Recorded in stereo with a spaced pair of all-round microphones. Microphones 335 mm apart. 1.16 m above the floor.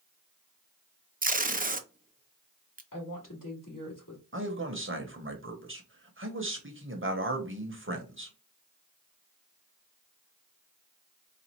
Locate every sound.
1.2 s tape being pulled: 25° right (ahead or behind), 0.5 m
2.9 s a woman speaking: 65° left (ahead or behind), 2.5 m
4.3 s a man speaking: 35° right (ahead or behind), 1.0 m